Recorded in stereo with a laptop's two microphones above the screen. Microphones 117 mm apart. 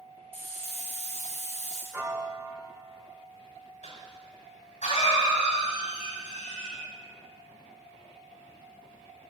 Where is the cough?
80° left, 6.5 m.